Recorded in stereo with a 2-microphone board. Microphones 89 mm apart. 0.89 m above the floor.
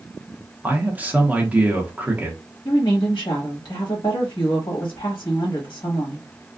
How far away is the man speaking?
About 0.8 m.